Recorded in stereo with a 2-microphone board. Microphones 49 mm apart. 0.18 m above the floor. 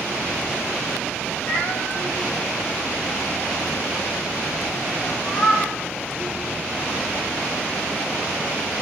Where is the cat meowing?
35° left (ahead or behind), 1.8 m; by 5.7 s 55° left (ahead or behind), 4.5 m.